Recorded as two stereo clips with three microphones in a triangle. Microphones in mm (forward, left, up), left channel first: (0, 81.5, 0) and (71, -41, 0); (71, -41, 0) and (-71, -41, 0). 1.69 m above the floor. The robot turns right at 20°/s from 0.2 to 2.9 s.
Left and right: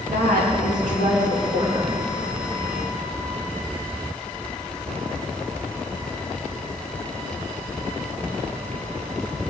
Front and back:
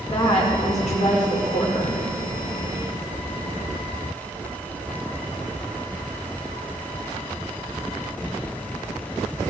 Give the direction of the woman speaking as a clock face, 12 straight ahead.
2 o'clock.